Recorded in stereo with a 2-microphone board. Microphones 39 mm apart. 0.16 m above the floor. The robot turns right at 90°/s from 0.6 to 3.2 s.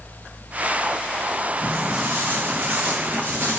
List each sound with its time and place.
1.6 s footsteps: 50° right (ahead or behind), 0.8 m; by 3.6 s 75° right (ahead or behind), 0.6 m